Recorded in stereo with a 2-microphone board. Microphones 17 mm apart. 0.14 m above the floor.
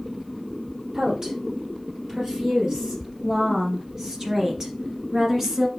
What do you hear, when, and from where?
0.9 s a woman speaking: 40° right (ahead or behind), 4 m; by 5.7 s 20° right (ahead or behind), 1.8 m